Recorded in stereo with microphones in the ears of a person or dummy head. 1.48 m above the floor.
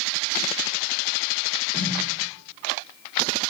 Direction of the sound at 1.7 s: 5° left (ahead or behind).